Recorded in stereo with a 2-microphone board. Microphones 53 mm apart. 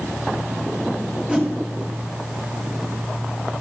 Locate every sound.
1.3 s a whoosh: 20° right (ahead or behind), 3 m